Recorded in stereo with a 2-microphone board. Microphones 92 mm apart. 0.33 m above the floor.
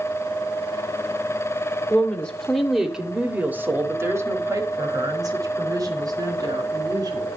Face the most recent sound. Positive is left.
turn(degrees=-45)  # may be behind; listen again after turning